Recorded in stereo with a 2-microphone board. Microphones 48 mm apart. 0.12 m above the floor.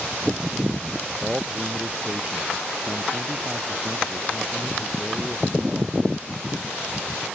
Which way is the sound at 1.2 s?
20° right (ahead or behind).